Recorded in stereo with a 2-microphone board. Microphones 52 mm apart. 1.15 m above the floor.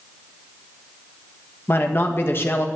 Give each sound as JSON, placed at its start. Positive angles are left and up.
{"t": 1.7, "sound": "a man speaking", "side_deg": 50, "distance_m": 1.6}